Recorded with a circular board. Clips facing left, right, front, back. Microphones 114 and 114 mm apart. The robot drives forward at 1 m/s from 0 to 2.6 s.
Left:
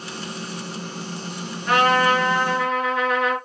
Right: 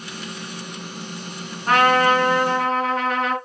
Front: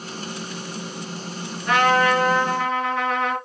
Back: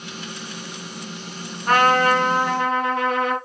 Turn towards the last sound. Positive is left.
turn(degrees=-145)